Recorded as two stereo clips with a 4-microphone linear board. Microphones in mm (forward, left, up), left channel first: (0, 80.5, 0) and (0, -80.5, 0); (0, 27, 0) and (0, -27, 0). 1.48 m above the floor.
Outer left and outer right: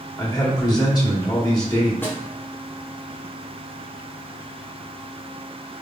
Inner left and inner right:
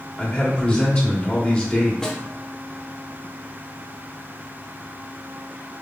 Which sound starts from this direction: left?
A man speaking, at 0.2 s.